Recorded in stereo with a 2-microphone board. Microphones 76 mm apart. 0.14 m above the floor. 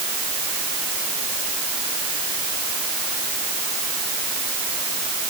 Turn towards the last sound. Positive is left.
No sound to turn to.